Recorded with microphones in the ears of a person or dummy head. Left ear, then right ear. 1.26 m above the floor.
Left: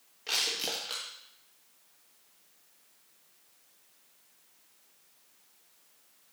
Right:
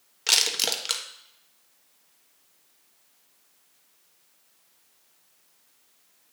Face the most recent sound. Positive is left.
turn(degrees=-55)  # may be behind; listen again after turning